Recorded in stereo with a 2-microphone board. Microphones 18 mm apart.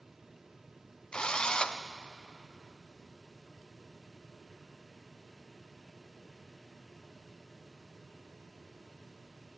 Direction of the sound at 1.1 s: 45° left (ahead or behind).